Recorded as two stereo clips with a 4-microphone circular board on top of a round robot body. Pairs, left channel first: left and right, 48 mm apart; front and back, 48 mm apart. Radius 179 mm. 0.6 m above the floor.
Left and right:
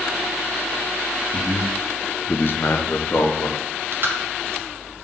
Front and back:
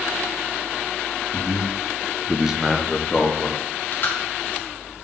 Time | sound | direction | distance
1.3 | a man speaking | 125° right | 1.2 m
3.6 | chewing | 50° right | 0.8 m